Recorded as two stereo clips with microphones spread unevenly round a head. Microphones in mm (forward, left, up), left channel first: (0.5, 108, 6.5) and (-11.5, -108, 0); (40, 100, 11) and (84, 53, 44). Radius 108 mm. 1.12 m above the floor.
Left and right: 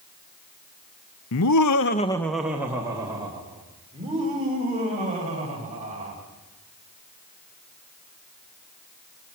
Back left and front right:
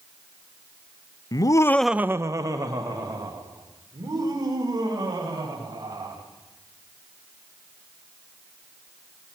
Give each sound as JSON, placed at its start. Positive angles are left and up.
{"t": 1.3, "sound": "laughter", "azimuth_deg": 110, "distance_m": 0.9}